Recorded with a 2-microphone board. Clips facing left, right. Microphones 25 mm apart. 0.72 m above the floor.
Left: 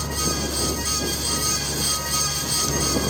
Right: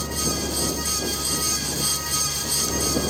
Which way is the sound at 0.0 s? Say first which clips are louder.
Left 1 dB; 15° left (ahead or behind).